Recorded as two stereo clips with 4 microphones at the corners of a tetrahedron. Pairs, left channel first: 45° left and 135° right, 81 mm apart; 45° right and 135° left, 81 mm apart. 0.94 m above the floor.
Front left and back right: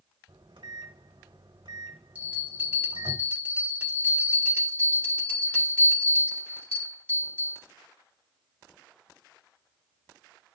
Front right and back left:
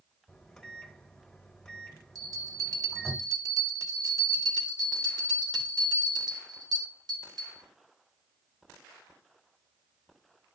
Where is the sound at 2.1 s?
160° left, 1.4 m.